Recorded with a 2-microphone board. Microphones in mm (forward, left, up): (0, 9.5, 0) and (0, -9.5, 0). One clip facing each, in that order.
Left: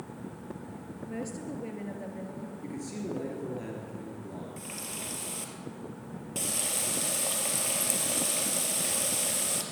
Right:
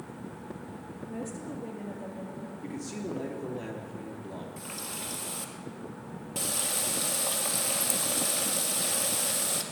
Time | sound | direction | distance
1.1 | a woman speaking | 50° left (ahead or behind) | 3 m
2.6 | a man speaking | 5° right (ahead or behind) | 2.5 m
4.6 | a running tap | 5° left (ahead or behind) | 2 m